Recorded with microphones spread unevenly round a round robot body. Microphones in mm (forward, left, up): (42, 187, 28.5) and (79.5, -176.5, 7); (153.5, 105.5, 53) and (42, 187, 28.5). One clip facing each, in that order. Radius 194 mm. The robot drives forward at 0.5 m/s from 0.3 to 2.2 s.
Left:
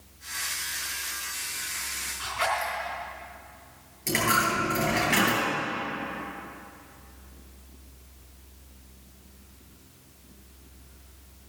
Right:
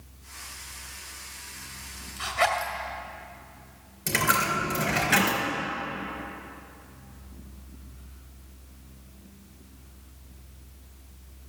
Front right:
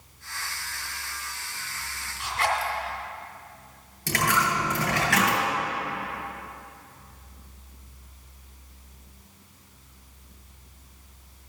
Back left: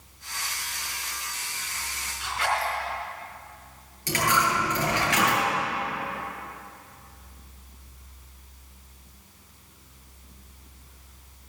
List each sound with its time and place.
2.2 s a zipper: 50° right, 2.5 m
4.1 s a dropped coin: 60° right, 3 m